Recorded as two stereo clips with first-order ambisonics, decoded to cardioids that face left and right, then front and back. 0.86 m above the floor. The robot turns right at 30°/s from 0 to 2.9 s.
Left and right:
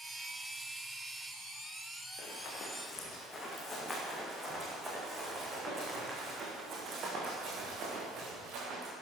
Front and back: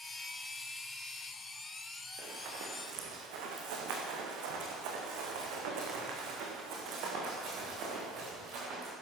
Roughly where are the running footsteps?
Behind left.